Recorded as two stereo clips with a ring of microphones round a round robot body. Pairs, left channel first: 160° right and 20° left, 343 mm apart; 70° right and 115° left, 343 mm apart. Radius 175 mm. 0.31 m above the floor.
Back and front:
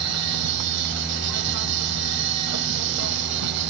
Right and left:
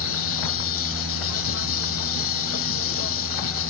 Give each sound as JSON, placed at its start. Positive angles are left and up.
{"t": 0.0, "sound": "an insect", "azimuth_deg": -20}